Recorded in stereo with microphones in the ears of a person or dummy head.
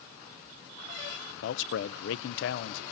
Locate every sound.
1.4 s a man speaking: 70° left (ahead or behind), 0.6 m